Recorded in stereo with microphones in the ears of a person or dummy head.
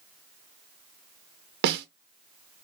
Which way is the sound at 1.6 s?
55° right (ahead or behind).